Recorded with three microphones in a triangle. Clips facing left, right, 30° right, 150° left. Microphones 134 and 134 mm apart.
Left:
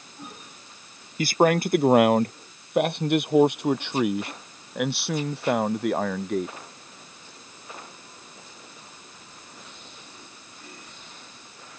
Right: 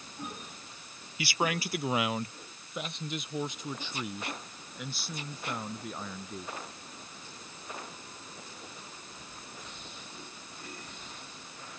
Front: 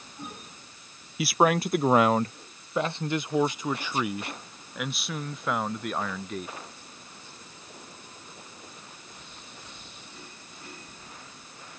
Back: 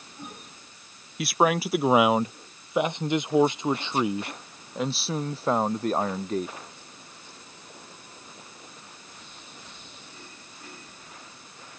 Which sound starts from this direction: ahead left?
A man speaking, at 1.2 s.